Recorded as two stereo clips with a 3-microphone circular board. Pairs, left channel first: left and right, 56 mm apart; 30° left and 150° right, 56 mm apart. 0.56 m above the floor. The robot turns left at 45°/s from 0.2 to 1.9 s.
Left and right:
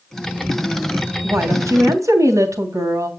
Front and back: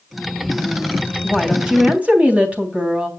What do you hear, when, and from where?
1.2 s a woman speaking: 55° right, 3.5 m; by 3.1 s 85° right, 3.5 m